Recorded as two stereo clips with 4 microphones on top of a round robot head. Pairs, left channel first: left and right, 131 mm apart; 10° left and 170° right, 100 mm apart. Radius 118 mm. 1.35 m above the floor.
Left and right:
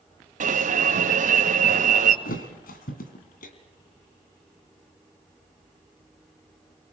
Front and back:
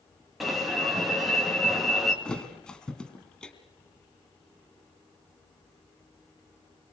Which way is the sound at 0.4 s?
80° right.